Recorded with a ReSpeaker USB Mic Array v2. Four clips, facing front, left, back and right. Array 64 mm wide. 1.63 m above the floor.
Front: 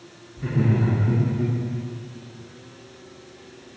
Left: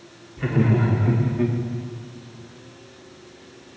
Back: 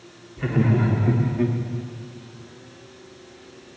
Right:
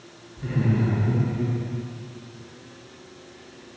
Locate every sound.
0.4 s laughter: 135° left, 4.5 m; by 1.6 s 150° left, 3.5 m